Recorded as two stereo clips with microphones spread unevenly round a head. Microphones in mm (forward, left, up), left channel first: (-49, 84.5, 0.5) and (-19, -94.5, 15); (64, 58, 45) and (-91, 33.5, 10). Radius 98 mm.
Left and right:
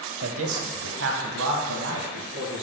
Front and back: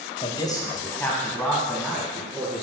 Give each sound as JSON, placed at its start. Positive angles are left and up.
{"t": 0.2, "sound": "a man speaking", "azimuth_deg": -55, "distance_m": 0.7}